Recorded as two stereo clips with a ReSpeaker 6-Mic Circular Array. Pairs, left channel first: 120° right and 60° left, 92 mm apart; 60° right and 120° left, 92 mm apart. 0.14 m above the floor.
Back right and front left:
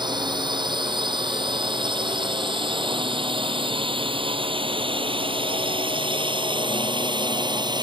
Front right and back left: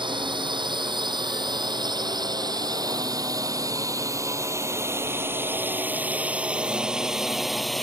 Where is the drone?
95° left; by 7.8 s 30° left.